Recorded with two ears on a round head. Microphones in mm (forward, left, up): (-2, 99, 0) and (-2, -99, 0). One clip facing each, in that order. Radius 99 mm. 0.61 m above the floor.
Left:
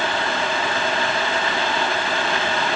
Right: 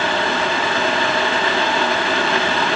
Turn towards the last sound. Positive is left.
No sound to turn to.